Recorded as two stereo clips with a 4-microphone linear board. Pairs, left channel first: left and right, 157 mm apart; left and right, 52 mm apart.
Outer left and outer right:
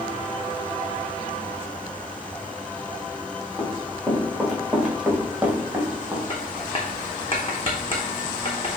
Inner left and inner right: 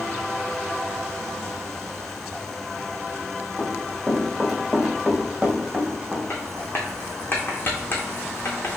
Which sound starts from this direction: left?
Writing, at 6.3 s.